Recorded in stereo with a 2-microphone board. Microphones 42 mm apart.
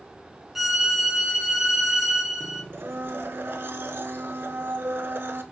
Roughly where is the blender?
Right.